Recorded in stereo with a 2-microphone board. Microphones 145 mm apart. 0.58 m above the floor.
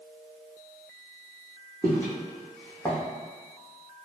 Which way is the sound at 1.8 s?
20° right (ahead or behind).